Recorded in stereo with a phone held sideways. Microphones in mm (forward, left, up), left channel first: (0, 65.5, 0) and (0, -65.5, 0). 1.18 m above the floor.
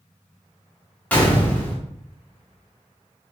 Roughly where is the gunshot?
Centre.